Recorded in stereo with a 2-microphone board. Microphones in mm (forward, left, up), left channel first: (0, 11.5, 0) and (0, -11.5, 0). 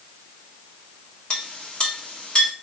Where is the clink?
45° left (ahead or behind), 1.4 m.